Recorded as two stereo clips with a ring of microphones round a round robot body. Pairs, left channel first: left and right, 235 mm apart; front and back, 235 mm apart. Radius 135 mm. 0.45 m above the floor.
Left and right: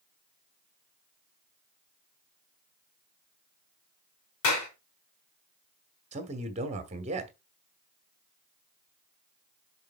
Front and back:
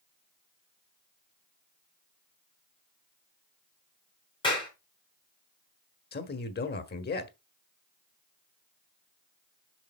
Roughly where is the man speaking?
Ahead right.